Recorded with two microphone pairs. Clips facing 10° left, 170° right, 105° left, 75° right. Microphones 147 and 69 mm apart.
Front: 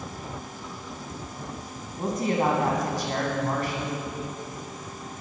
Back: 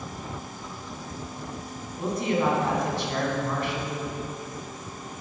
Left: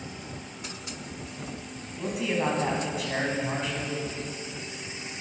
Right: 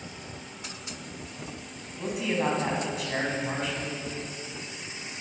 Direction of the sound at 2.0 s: 15° left.